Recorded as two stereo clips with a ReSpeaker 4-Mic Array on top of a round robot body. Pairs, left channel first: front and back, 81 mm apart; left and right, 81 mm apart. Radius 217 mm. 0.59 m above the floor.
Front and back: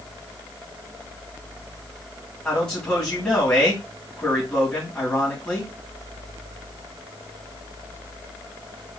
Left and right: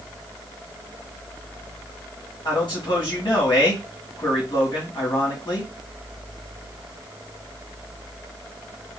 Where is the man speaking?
75° left, 2.5 m.